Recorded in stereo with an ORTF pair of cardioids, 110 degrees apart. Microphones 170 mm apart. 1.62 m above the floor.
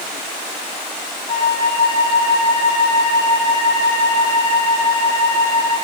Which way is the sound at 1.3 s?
50° left.